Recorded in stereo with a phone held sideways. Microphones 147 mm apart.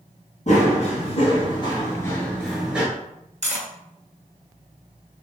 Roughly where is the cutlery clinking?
Right.